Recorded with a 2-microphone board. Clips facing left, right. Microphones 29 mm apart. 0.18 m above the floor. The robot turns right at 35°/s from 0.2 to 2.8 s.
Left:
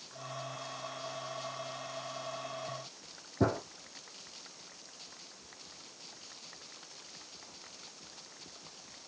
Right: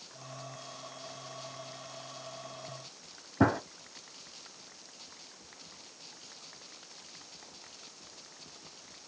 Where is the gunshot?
60° right (ahead or behind), 0.8 m.